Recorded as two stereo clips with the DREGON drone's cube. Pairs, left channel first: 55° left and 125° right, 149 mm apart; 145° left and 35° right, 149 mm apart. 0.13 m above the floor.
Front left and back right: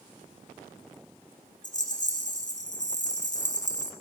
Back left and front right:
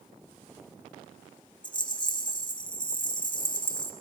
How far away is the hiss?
I don't hear a hiss.